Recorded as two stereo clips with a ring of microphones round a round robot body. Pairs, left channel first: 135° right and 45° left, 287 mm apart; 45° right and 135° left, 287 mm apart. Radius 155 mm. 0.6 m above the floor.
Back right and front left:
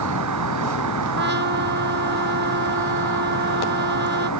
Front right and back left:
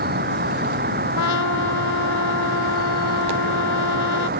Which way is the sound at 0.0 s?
75° left.